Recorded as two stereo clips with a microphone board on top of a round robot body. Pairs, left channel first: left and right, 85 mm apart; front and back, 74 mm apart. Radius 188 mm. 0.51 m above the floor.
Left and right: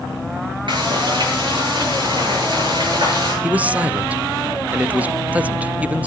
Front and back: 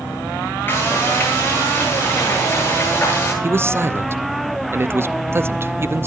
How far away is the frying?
About 9.5 m.